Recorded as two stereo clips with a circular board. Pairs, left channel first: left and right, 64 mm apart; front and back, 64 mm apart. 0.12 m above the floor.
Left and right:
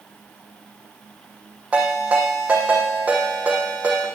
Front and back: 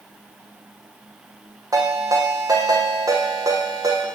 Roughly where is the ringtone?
Behind.